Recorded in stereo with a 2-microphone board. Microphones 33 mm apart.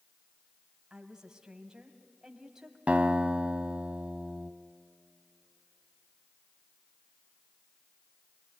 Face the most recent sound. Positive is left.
turn(degrees=-45)  # may be behind; listen again after turning